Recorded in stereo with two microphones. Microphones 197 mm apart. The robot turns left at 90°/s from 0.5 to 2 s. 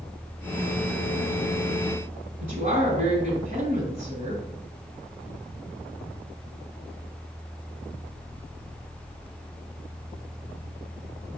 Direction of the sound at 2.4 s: 40° right (ahead or behind).